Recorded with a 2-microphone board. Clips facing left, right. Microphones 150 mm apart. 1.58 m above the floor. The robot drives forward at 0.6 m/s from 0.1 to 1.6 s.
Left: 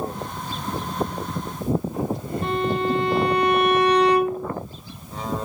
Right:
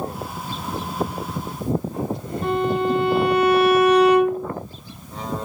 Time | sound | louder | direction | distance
2.4 | a violin | right 3 dB | 5° right (ahead or behind) | 6.5 m